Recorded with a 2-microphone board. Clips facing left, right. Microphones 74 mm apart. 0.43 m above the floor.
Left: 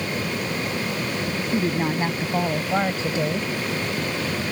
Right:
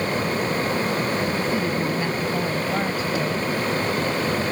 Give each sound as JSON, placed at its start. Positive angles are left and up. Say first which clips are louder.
{"t": 1.5, "sound": "a woman speaking", "louder": "even", "side_deg": 35}